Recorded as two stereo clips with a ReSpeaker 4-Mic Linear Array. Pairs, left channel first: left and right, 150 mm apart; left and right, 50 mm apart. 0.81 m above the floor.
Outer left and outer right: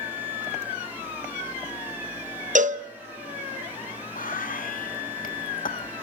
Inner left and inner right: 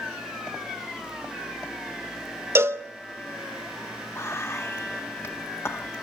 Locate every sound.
2.5 s a cowbell: 55° right (ahead or behind), 0.9 m
4.2 s whispering: 65° left (ahead or behind), 1.4 m